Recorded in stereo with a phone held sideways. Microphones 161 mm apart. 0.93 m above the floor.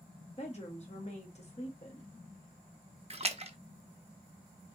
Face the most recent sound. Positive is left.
turn(degrees=-40)  # may be behind; listen again after turning